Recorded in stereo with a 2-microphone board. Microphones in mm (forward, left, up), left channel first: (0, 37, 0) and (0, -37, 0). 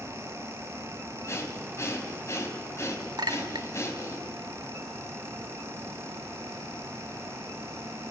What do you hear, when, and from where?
1.3 s breathing: 40° left (ahead or behind), 2.5 m
3.2 s a clink: 65° right (ahead or behind), 0.9 m